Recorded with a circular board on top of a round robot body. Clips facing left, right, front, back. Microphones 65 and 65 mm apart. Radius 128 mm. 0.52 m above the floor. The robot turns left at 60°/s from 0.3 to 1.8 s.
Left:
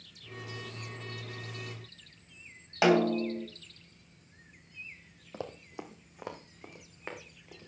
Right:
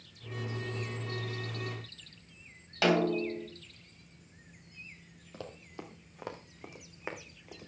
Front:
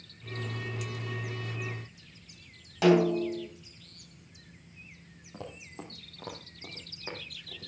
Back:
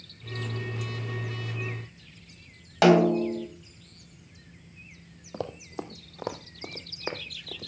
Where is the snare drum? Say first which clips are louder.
Left 3 dB, back 4 dB; 160° left, 2.5 m.